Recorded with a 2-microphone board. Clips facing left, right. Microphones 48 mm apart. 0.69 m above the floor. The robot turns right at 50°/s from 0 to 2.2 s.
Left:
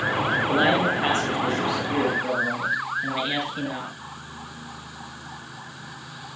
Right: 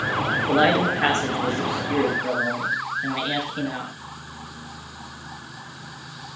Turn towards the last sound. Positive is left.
turn(degrees=0)